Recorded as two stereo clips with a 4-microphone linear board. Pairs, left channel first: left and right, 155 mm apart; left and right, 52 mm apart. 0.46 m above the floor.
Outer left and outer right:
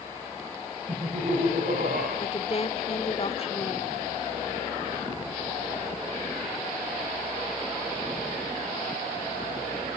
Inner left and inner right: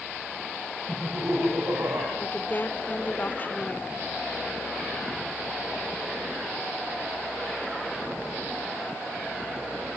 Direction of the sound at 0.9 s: 50° right (ahead or behind).